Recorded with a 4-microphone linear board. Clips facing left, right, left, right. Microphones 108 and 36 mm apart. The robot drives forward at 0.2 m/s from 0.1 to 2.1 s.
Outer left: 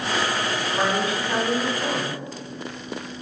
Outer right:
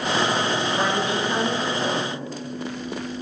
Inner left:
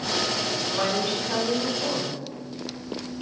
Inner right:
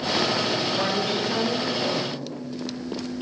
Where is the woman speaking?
20° left (ahead or behind), 1.0 m.